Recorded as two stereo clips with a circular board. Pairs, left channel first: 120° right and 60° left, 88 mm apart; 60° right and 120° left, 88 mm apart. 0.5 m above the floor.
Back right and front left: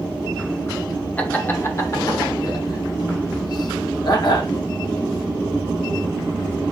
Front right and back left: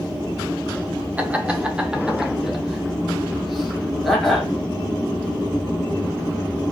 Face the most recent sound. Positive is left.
turn(degrees=-150)